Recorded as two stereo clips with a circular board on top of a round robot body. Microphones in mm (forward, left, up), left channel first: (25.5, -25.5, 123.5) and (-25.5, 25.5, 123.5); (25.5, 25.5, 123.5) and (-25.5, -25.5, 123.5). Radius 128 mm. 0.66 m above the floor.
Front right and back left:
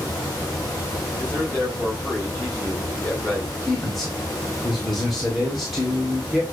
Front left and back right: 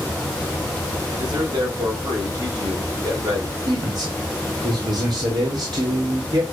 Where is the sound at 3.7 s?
135° right, 2.5 m.